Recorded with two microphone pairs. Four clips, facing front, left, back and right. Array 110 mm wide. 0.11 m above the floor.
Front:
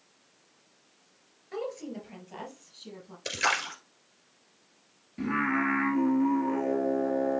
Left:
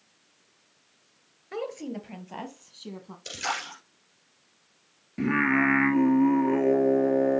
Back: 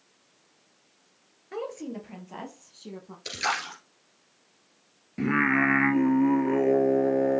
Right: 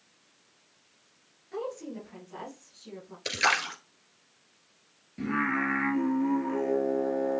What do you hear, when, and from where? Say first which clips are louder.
1.5 s a woman speaking: left 2 dB, back 1 dB; 115° left, 1.7 m
3.2 s a splash: right 5 dB, even; 75° right, 2.0 m
5.2 s singing: left 5 dB, back 4 dB; 145° left, 0.8 m